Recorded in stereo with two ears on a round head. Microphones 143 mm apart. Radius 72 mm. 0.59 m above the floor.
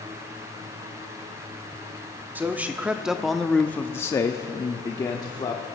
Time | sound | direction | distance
2.4 | a man speaking | 10° right (ahead or behind) | 0.9 m